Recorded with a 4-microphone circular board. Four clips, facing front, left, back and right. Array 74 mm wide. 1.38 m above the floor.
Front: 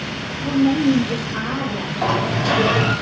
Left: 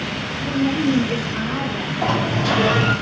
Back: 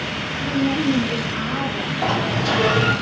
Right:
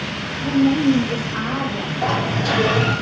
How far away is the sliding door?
About 3 m.